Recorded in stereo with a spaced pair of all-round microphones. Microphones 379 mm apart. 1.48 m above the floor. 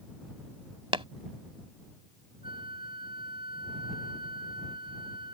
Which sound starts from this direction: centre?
Tapping, at 0.9 s.